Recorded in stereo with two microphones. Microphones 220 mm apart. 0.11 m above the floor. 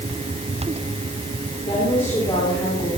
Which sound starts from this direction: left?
A woman speaking, at 1.6 s.